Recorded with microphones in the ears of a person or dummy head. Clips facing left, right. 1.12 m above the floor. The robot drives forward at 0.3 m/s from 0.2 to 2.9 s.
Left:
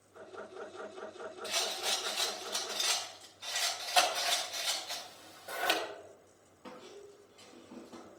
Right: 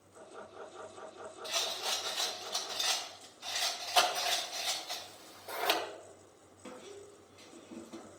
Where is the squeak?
15° right (ahead or behind), 2 m.